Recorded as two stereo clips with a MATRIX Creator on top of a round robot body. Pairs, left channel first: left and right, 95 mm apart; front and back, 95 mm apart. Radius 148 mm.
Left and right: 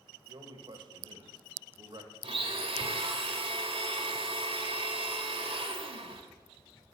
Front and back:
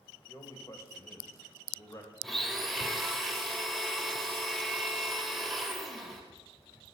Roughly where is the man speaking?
Ahead right.